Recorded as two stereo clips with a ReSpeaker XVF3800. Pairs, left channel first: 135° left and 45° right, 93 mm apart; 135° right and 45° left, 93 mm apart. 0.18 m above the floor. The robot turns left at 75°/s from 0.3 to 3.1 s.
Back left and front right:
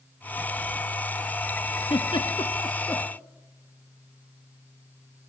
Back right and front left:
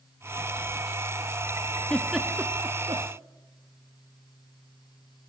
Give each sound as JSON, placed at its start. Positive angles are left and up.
{"t": 1.9, "sound": "a giggle", "azimuth_deg": 150, "distance_m": 1.7}